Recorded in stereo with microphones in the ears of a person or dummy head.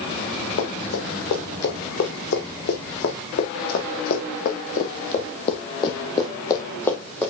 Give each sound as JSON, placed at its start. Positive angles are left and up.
{"t": 0.6, "sound": "running footsteps", "side_deg": 65, "distance_m": 4.5}